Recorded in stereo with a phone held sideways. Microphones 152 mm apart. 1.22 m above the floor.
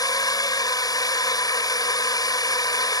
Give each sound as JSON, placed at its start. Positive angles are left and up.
{"t": 0.0, "sound": "a drone", "side_deg": 25}